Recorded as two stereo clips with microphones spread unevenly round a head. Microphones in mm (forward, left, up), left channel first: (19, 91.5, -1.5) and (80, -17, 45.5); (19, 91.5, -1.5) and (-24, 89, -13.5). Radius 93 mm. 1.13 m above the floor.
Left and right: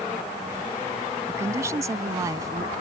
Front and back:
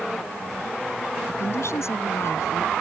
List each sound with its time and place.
1.3 s a woman speaking: 5° left; by 2.7 s straight ahead